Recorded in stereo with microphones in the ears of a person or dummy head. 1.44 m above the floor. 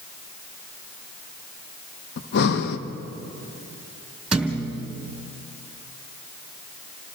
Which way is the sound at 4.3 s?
5° right (ahead or behind).